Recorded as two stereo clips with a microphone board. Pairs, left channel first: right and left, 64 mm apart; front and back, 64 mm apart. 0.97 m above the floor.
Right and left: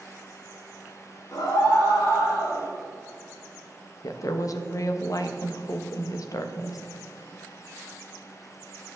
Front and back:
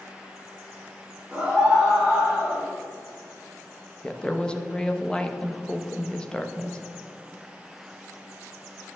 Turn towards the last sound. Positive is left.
turn(degrees=-75)